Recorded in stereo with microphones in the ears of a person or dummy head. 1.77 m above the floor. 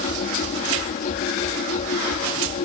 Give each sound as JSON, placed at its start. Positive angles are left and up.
{"t": 0.0, "sound": "a machine running", "side_deg": 45}